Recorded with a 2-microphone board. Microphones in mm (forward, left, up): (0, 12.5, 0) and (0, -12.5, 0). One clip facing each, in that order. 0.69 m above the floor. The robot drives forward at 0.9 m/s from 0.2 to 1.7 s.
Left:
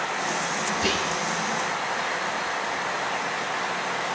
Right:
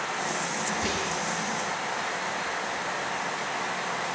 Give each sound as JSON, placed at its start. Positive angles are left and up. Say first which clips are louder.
{"t": 0.7, "sound": "whispering", "louder": "left 4 dB", "side_deg": 55, "distance_m": 6.5}